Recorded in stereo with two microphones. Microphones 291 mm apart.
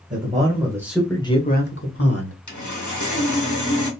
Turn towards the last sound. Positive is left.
turn(degrees=80)